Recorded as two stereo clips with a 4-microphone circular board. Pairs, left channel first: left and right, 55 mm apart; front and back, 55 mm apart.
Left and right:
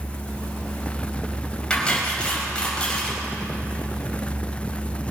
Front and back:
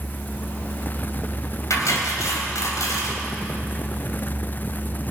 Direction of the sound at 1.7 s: 15° left.